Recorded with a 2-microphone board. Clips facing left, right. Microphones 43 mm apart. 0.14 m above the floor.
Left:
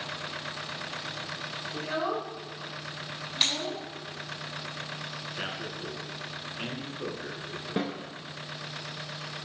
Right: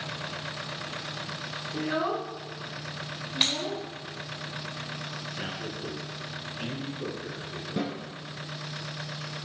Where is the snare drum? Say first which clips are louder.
Even; 35° left (ahead or behind), 1.7 m.